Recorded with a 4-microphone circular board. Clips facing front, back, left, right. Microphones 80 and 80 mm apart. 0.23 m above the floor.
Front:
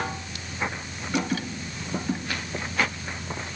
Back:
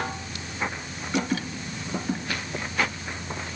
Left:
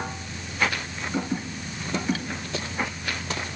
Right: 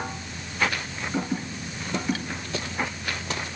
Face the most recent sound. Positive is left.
No sound to turn to.